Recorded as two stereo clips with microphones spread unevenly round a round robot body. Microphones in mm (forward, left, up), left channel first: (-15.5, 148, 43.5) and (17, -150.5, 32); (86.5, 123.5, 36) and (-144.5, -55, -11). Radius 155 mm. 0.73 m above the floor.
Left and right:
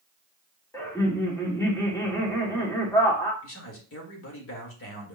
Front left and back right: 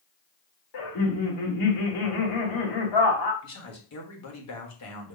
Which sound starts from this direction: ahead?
Laughter, at 0.7 s.